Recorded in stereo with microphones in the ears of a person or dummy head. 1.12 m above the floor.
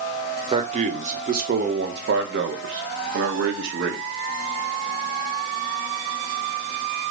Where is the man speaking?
30° right (ahead or behind), 1.3 m; by 4.0 s 60° right (ahead or behind), 1.8 m.